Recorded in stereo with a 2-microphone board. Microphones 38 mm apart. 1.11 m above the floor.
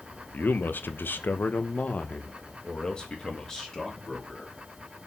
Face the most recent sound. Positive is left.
turn(degrees=10)  # may be behind; listen again after turning